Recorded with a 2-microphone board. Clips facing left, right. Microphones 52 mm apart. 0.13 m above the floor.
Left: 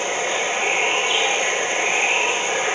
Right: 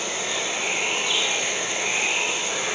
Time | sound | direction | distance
0.0 | running water | 35° left (ahead or behind) | 0.8 m